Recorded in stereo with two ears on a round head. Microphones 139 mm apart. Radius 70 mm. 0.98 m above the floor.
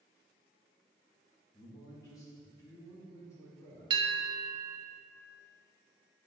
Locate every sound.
1.5 s a man speaking: 25° left (ahead or behind), 1.5 m; by 3.9 s 20° left (ahead or behind), 3.5 m
3.9 s a bell: 30° right (ahead or behind), 0.6 m